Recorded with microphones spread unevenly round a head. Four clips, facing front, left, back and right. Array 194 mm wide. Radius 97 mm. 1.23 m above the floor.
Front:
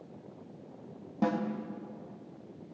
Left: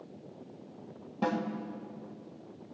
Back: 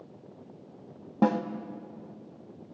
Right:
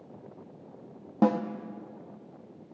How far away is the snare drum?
About 1.3 m.